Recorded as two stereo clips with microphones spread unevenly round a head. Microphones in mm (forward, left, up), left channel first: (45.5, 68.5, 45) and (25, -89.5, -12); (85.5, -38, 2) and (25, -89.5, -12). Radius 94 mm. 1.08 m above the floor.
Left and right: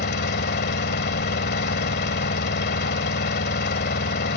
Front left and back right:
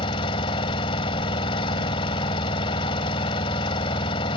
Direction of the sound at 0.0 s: 60° left.